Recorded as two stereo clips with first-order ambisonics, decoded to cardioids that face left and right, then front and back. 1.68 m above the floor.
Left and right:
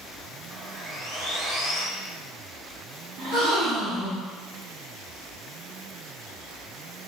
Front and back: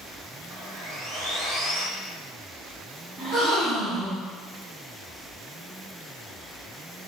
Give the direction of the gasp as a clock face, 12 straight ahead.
3 o'clock.